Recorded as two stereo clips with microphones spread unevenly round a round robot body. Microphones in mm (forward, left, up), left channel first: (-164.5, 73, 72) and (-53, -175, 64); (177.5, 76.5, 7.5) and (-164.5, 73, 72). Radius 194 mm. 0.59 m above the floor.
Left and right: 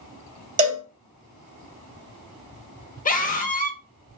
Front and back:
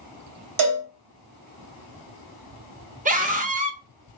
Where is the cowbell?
130° right, 2.5 m.